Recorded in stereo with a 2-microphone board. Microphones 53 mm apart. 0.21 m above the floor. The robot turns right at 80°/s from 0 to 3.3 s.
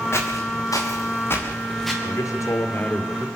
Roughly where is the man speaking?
Left.